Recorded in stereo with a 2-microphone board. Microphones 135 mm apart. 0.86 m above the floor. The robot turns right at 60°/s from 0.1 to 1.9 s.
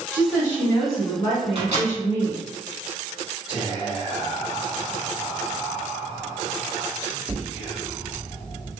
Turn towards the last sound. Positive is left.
turn(degrees=0)  # may be behind; listen again after turning